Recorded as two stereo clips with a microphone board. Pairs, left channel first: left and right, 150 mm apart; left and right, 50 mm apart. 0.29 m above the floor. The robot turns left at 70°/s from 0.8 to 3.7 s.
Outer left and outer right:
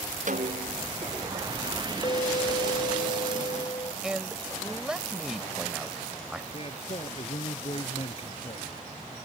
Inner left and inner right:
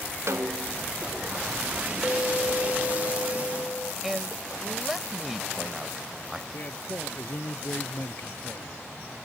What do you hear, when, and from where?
0.3 s a snare drum: 60° right (ahead or behind); by 0.8 s 55° right (ahead or behind)
2.0 s a clink: 145° left; by 3.9 s 30° left
4.0 s a man speaking: 5° right (ahead or behind)
6.5 s a man speaking: 40° left (ahead or behind)